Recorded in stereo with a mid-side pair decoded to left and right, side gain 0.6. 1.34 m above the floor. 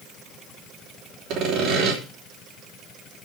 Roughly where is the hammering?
I don't hear hammering.